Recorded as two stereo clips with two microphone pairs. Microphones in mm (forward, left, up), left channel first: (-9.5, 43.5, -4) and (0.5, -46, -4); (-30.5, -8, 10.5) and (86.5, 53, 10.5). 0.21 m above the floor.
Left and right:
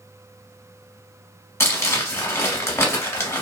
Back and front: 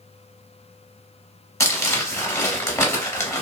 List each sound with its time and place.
1.6 s crumpling: 145° left, 0.9 m